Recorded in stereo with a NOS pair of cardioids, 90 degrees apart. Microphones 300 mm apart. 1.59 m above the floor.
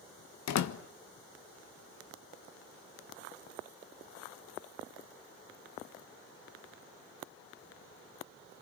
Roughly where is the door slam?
Ahead left.